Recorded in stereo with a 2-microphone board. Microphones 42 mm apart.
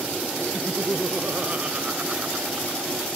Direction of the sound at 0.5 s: 30° right (ahead or behind).